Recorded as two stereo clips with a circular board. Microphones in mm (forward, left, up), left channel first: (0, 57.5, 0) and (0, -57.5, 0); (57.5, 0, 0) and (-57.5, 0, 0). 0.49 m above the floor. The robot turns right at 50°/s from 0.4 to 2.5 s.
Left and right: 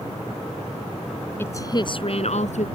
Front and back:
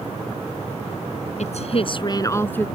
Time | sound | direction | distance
1.4 | a woman speaking | 20° left | ?